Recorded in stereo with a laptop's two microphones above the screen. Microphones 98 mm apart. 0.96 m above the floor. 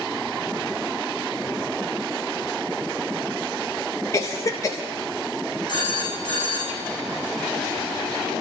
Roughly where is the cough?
Left.